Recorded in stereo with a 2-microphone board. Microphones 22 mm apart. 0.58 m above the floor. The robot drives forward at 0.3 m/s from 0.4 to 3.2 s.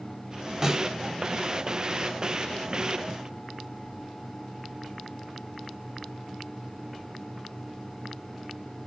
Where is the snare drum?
25° right (ahead or behind), 2 m.